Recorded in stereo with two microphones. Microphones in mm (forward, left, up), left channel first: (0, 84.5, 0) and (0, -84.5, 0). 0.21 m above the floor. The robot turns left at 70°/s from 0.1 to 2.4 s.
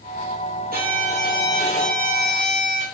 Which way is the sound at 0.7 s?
110° right.